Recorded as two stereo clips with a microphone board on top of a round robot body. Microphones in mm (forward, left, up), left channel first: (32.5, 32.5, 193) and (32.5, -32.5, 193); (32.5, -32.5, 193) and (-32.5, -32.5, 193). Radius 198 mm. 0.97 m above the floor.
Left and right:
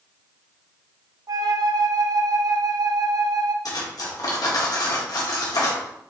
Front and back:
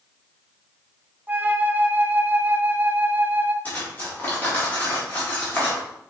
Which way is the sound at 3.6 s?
65° left.